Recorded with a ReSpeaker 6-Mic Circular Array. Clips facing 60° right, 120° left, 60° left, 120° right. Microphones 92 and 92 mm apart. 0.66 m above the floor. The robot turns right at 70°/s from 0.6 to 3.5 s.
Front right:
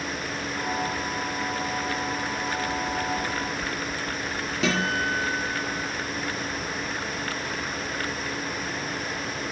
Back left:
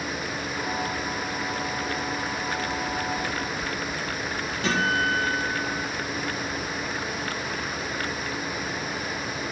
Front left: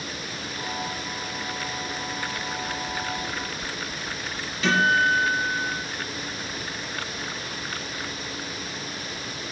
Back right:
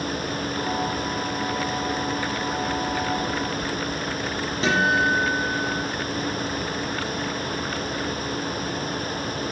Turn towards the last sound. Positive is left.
turn(degrees=-55)